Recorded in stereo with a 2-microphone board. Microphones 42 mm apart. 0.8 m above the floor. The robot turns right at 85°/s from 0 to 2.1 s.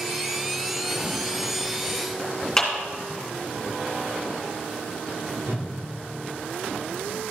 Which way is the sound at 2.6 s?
15° left (ahead or behind).